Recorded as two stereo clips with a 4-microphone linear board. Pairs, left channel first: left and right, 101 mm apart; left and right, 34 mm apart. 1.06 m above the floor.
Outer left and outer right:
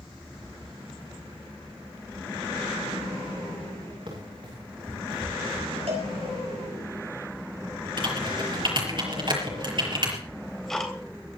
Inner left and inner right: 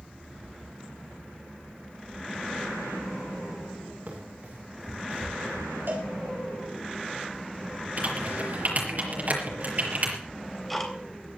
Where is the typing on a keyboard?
50° right (ahead or behind), 5.5 m.